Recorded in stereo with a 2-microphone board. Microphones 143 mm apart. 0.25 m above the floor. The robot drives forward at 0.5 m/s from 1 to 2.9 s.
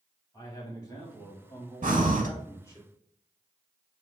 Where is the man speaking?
30° left (ahead or behind), 1.4 m; by 2.8 s 20° left (ahead or behind), 2.0 m.